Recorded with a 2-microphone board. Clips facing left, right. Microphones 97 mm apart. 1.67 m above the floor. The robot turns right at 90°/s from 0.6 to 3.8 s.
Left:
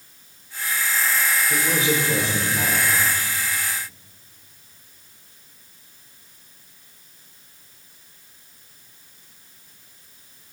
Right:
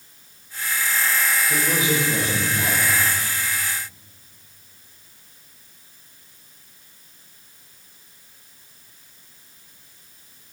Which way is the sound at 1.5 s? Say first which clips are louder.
Left 1 dB; straight ahead.